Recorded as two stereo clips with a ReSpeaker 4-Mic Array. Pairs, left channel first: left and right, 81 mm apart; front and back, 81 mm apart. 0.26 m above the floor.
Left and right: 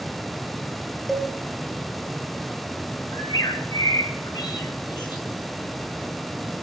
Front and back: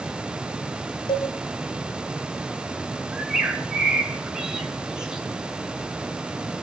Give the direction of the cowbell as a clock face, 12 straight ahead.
12 o'clock.